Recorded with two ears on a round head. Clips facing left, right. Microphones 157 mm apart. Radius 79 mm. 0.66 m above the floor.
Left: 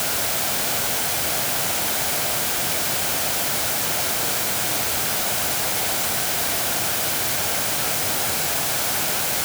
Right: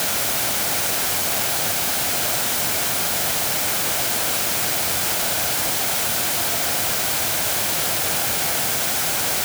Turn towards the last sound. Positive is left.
No sound to turn to.